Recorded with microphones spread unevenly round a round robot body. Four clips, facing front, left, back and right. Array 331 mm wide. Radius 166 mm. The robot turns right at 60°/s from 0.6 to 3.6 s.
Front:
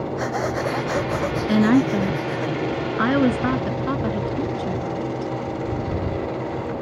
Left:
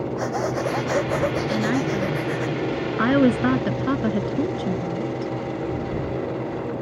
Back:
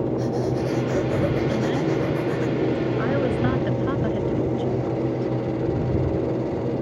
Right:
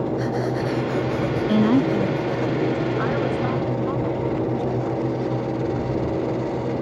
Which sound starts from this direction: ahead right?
A woman speaking, at 1.5 s.